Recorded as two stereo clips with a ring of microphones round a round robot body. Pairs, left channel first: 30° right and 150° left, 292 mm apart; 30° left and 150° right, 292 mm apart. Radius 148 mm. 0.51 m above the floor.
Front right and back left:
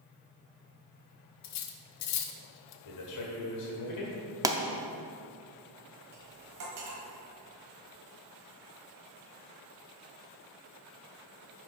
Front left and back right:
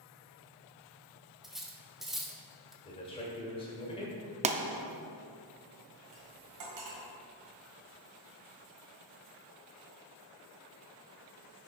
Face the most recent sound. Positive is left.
turn(degrees=-170)